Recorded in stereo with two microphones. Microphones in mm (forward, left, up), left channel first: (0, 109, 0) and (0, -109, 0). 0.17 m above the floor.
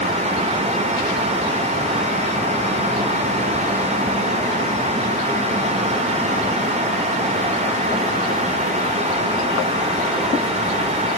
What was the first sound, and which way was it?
Only background noise.